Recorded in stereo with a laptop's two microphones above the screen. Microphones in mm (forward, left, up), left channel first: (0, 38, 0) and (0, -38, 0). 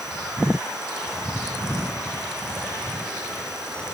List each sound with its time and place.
Only background noise.